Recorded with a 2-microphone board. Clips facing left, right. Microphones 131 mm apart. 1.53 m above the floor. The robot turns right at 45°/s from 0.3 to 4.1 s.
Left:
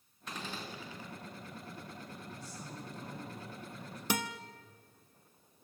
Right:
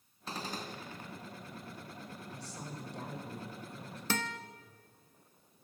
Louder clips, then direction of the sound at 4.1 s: Left 1 dB; 15° left (ahead or behind).